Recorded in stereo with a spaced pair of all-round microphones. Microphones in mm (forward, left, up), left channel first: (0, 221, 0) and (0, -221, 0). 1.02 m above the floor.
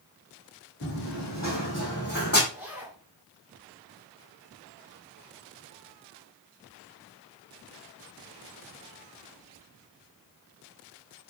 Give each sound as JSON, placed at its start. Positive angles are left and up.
{"t": 0.8, "sound": "running footsteps", "side_deg": 40, "distance_m": 3.0}
{"t": 2.5, "sound": "a zipper", "side_deg": -5, "distance_m": 5.5}